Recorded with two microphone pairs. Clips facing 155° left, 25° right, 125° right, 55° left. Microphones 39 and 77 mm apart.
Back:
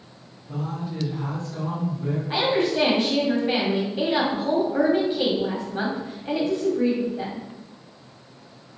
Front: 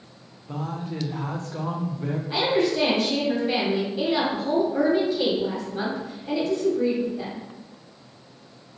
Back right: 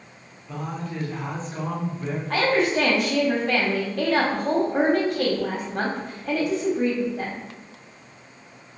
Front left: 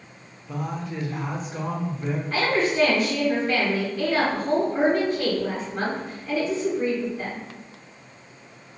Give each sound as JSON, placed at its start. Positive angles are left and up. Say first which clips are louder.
{"t": 0.5, "sound": "a man speaking", "louder": "even, front left 1 dB", "azimuth_deg": -30, "distance_m": 0.6}
{"t": 2.3, "sound": "a woman speaking", "louder": "even, back right 2 dB", "azimuth_deg": -140, "distance_m": 1.0}